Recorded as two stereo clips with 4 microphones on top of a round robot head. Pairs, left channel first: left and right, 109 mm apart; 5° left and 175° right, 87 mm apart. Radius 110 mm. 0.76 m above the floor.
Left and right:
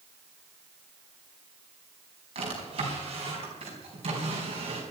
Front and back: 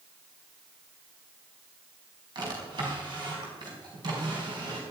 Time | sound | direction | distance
2.4 | a drawer | 130° right | 4.5 m